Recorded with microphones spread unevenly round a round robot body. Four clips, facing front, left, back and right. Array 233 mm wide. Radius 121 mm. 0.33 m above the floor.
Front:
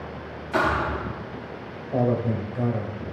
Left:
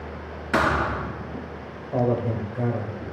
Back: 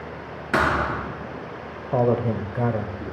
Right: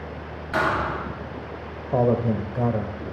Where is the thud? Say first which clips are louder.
Left 1 dB, back 2 dB; 150° left, 3.5 m.